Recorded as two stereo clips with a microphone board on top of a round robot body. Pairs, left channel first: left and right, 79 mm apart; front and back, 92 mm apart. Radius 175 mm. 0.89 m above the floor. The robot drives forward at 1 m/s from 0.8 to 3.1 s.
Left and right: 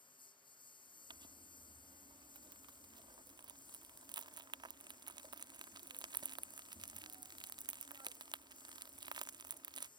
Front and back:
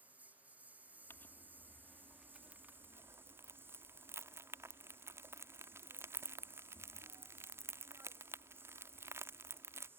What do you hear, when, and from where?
0.0 s a lawn mower: 105° left; by 10.0 s 115° left
1.1 s crumpling: 65° right; by 9.9 s 115° right